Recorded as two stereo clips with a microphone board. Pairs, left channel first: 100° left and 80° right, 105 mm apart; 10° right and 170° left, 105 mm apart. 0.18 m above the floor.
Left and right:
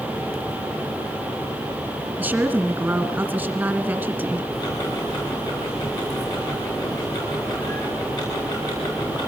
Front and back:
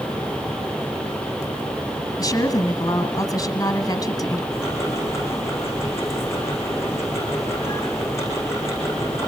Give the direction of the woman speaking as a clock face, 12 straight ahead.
1 o'clock.